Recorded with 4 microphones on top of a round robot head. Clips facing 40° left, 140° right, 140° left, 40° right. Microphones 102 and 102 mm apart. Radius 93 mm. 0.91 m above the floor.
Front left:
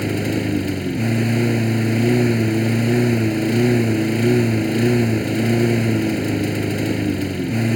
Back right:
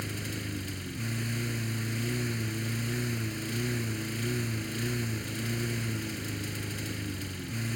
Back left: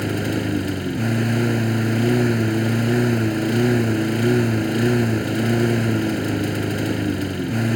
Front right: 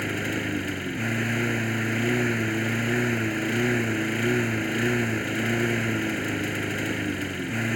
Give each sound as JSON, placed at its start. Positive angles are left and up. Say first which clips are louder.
{"t": 0.0, "sound": "a lawn mower", "louder": "front left 17 dB, back left 6 dB", "azimuth_deg": 70}